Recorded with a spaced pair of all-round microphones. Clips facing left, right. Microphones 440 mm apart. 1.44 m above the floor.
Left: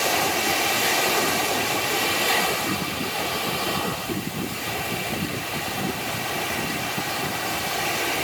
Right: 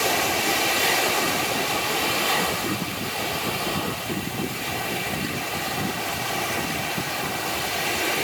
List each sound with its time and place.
Only background noise.